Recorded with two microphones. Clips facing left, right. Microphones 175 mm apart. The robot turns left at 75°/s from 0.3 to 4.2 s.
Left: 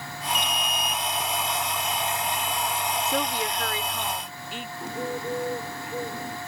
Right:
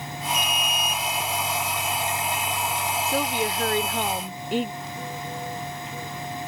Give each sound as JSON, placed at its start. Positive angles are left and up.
{"t": 0.3, "sound": "an alarm", "side_deg": 20}
{"t": 3.1, "sound": "a woman speaking", "azimuth_deg": 0}
{"t": 4.8, "sound": "a bird", "side_deg": 55}